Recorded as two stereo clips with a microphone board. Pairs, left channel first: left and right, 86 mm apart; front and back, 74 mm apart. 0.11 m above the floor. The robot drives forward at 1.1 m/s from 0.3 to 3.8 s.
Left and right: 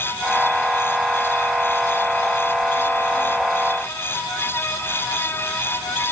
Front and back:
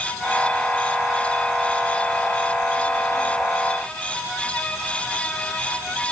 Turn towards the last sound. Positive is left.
No sound to turn to.